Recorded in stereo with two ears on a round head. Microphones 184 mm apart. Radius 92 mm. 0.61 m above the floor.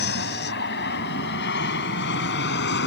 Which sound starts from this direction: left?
An aircraft, at 0.0 s.